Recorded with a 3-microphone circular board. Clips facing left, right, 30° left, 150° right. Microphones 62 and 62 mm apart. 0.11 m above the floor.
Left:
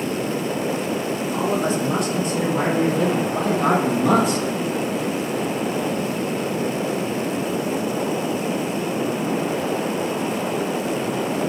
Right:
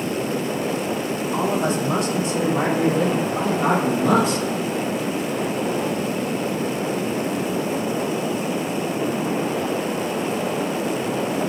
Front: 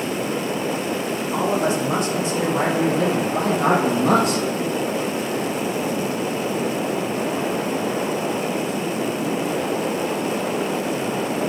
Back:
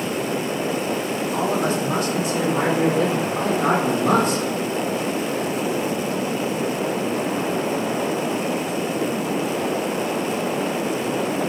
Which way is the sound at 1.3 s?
45° right.